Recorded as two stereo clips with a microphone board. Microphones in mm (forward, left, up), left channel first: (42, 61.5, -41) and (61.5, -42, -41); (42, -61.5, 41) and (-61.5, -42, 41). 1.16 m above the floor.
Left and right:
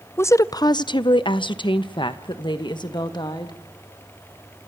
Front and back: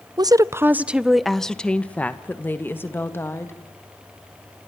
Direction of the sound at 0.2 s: 150° left.